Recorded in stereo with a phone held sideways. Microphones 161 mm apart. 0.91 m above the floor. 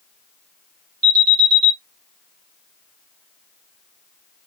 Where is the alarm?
45° left (ahead or behind), 1.4 m.